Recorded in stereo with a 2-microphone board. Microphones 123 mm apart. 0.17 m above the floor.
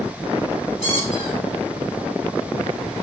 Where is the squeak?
60° left (ahead or behind), 2.0 m.